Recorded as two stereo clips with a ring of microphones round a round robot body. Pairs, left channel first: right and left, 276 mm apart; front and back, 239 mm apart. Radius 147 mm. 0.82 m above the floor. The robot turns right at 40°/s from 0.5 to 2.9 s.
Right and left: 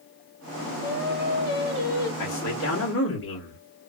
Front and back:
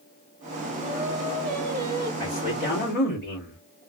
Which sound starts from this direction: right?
A man speaking, at 2.2 s.